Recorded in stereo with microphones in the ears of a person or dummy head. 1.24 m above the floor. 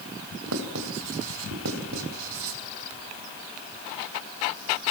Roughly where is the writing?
Right.